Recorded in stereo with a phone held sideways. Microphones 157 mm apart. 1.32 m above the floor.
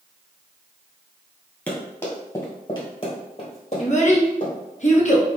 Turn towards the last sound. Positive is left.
turn(degrees=50)  # may be behind; listen again after turning